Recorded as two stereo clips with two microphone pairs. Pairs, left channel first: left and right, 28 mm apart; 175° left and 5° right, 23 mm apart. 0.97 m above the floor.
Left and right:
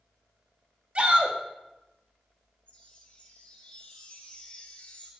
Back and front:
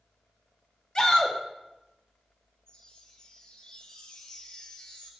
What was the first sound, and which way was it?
A shout, 140° right.